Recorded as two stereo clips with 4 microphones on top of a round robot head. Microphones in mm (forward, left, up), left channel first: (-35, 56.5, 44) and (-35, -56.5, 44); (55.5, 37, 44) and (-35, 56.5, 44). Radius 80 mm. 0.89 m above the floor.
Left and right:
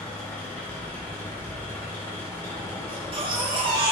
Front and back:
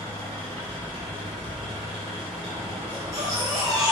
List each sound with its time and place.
0.0 s an engine running: 165° left, 3 m
2.9 s a baby crying: 125° right, 1.3 m